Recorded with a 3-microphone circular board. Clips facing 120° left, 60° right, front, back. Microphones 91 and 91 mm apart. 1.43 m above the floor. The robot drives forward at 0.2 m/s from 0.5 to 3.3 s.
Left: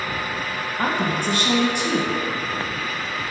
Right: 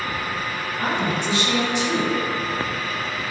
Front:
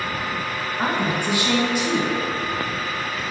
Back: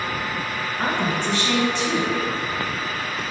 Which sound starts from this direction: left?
A woman speaking, at 0.8 s.